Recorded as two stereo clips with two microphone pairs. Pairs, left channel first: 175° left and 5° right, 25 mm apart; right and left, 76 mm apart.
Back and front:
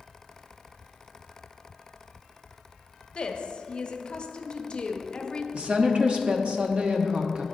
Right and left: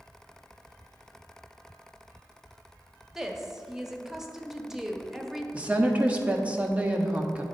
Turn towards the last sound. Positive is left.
turn(degrees=25)